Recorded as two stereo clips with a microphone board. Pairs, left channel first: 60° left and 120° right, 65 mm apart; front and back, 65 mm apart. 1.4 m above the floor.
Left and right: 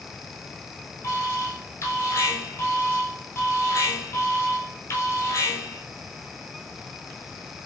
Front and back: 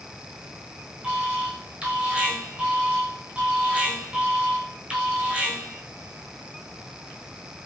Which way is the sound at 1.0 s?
110° left.